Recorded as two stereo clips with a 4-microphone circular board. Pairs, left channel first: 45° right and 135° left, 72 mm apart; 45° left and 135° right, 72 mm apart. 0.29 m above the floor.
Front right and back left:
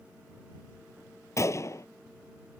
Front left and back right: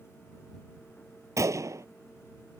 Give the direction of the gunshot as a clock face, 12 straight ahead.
3 o'clock.